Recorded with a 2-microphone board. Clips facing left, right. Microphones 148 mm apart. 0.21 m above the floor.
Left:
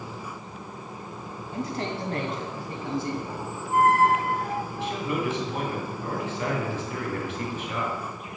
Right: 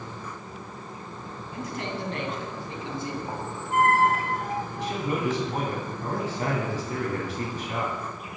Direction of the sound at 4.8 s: 40° right (ahead or behind).